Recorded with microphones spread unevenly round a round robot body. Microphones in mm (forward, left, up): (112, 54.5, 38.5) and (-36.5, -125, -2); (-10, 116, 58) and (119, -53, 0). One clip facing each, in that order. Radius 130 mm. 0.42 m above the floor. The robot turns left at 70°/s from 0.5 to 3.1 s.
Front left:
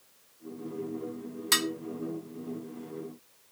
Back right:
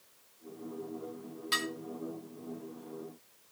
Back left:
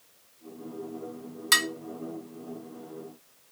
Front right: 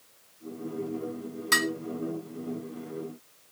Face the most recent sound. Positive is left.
turn(degrees=-30)